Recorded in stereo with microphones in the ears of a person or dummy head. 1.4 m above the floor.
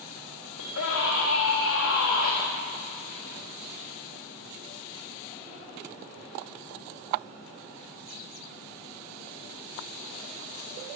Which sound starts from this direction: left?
A scream, at 0.6 s.